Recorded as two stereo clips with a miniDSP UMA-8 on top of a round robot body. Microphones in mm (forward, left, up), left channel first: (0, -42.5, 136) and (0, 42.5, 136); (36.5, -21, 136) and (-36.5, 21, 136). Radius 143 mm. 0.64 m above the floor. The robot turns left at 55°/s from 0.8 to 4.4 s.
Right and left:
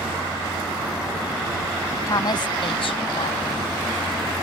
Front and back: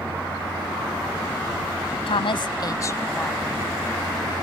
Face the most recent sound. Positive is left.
turn(degrees=-170)